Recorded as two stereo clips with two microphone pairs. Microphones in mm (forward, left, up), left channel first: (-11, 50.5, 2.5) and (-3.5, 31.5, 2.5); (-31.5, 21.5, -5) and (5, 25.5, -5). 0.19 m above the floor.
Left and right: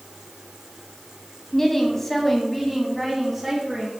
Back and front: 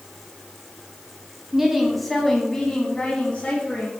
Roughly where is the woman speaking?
Left.